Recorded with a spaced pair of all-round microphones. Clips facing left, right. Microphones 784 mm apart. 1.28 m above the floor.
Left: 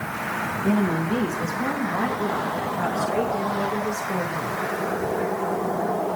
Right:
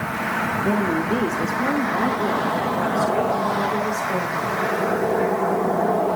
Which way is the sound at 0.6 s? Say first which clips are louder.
Even; 35° left (ahead or behind).